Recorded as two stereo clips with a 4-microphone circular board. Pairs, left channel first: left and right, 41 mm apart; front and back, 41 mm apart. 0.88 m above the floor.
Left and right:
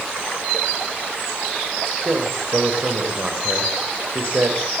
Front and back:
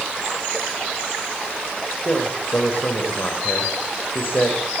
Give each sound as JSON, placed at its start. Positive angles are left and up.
{"t": 2.0, "sound": "a man speaking", "azimuth_deg": -40, "distance_m": 4.5}